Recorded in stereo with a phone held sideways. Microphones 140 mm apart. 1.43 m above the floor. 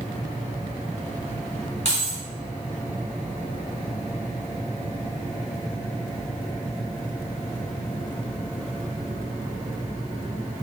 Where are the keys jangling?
50° left (ahead or behind), 1.6 m.